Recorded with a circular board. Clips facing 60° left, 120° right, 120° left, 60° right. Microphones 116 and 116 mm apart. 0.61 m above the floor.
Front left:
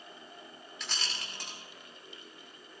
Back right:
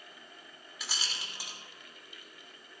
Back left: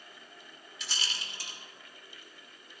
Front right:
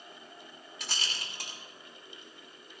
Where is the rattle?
35° right, 1.9 m.